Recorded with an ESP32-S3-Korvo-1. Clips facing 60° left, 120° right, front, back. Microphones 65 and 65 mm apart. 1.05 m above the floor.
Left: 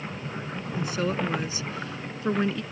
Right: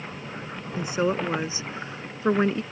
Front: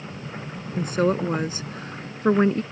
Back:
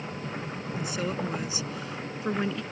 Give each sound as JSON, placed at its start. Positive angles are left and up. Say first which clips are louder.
{"t": 0.8, "sound": "a woman speaking", "louder": "right 3 dB, front 10 dB", "azimuth_deg": -50}